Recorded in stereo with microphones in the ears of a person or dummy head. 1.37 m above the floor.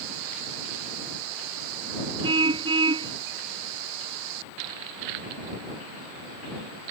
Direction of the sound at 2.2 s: 25° right (ahead or behind).